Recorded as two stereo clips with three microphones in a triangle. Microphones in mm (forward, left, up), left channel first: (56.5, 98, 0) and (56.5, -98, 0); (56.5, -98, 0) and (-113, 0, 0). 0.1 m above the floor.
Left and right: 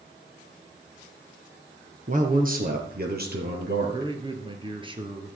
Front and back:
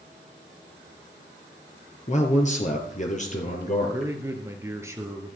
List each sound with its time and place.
2.1 s a man speaking: 65° right, 1.6 m; by 4.1 s 75° right, 2.5 m
3.9 s a man speaking: 140° right, 1.6 m